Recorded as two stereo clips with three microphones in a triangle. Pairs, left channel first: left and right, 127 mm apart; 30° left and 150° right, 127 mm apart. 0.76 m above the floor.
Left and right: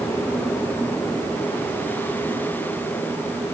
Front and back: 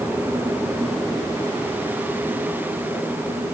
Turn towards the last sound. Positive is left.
No sound to turn to.